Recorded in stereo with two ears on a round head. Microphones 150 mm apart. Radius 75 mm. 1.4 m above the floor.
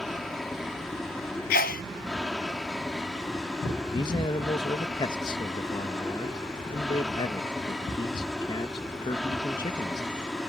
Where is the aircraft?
Centre (ahead or behind).